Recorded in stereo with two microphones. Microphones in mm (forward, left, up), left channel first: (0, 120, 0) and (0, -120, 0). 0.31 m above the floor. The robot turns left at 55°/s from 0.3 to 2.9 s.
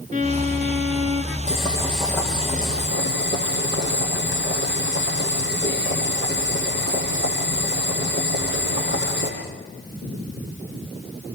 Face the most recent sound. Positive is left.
turn(degrees=130)